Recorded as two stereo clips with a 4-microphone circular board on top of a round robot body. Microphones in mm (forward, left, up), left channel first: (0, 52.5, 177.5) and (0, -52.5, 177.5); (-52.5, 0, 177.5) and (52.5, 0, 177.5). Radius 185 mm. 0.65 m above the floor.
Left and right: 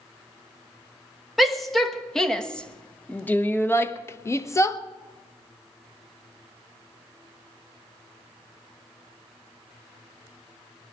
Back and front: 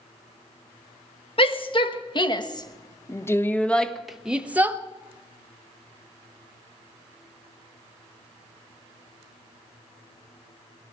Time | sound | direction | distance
1.4 | a shout | straight behind | 1.9 m